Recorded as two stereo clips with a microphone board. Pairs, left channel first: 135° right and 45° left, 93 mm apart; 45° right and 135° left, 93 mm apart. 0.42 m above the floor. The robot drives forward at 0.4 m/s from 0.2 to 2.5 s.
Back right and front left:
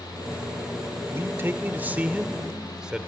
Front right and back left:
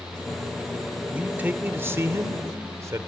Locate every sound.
1.1 s a man speaking: 75° left, 1.2 m; by 3.1 s 120° left, 1.2 m